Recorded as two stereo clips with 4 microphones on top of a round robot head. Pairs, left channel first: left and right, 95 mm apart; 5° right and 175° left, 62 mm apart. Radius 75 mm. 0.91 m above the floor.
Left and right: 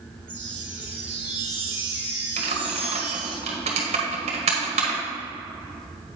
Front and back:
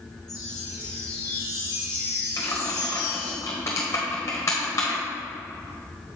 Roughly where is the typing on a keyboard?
Ahead right.